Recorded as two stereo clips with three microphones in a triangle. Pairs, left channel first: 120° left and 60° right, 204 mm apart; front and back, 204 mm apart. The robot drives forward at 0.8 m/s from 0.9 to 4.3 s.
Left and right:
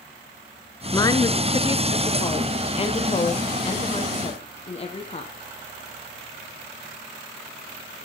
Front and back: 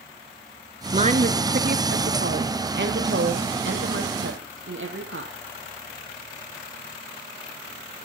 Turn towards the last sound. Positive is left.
turn(degrees=180)